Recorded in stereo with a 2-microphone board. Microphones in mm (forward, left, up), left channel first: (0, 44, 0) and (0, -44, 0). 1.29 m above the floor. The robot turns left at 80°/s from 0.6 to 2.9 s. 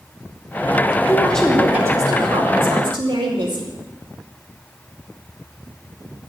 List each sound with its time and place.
1.1 s a woman speaking: 30° left, 2.5 m; by 3.7 s 115° right, 2.5 m